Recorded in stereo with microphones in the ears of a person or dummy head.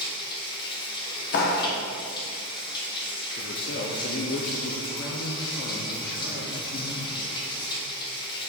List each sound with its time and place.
0.0 s running water: 20° left (ahead or behind), 1.0 m
1.3 s a clap: 55° left (ahead or behind), 0.6 m
3.4 s a man speaking: 50° left (ahead or behind), 0.5 m